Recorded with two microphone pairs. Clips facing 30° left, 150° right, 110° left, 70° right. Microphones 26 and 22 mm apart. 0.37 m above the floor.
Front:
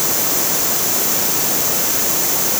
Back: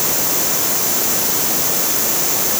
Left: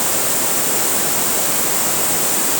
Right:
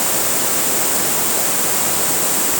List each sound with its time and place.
Only background noise.